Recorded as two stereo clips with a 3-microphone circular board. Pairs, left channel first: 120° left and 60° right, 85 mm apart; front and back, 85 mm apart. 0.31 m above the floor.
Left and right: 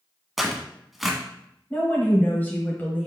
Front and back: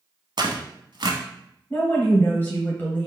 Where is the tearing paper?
150° right, 0.8 m.